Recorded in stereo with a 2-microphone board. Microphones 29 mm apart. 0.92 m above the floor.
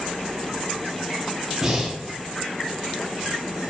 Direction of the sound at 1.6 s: 10° right (ahead or behind).